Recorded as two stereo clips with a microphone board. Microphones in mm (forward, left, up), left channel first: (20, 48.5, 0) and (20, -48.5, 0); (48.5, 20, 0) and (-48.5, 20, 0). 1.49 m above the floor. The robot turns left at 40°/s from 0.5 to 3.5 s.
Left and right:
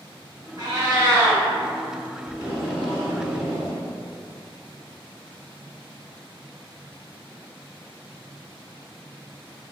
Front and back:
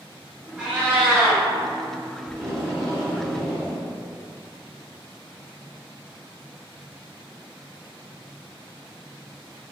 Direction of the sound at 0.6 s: 100° right.